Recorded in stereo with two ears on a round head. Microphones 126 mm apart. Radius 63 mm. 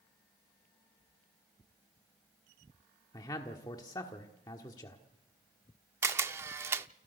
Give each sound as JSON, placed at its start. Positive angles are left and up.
{"t": 3.1, "sound": "a man speaking", "side_deg": 30, "distance_m": 1.4}
{"t": 6.0, "sound": "a camera shutter", "side_deg": -20, "distance_m": 0.5}